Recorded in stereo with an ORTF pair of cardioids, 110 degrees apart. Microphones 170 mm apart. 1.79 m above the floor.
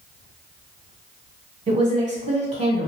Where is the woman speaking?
40° right, 1.4 m.